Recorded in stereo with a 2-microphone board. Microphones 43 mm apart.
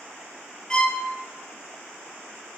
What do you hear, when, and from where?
0.7 s a violin: 20° left (ahead or behind), 0.5 m